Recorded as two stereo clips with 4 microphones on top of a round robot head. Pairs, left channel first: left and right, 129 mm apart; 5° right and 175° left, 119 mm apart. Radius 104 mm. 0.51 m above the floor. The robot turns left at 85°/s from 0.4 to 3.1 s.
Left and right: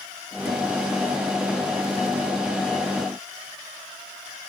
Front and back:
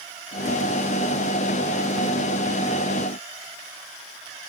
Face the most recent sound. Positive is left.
No sound to turn to.